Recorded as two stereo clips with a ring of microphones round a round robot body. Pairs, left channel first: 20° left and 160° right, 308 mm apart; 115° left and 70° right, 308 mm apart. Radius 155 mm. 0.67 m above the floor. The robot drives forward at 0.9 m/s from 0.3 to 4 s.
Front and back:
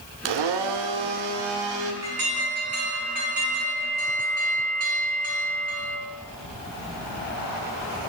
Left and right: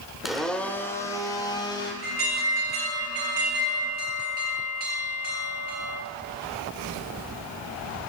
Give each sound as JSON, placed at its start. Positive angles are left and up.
{"t": 0.2, "sound": "a blender", "azimuth_deg": -155, "distance_m": 0.9}
{"t": 2.0, "sound": "an alarm", "azimuth_deg": -115, "distance_m": 5.0}